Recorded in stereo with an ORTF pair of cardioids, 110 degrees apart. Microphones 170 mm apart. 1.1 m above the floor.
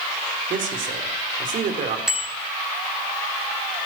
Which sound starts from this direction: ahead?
A bicycle bell, at 2.1 s.